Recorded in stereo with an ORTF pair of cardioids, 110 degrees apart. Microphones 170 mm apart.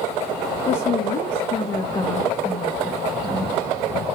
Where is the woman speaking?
55° left, 1.4 m; by 3.5 s 15° right, 1.4 m.